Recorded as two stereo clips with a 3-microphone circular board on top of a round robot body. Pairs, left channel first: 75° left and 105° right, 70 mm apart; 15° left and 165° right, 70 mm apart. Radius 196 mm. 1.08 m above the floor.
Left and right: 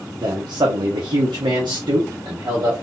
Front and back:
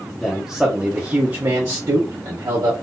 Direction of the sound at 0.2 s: 65° right.